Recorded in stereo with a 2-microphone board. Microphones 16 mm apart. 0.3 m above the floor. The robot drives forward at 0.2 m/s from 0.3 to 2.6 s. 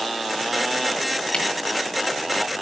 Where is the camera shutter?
70° left (ahead or behind), 3 m.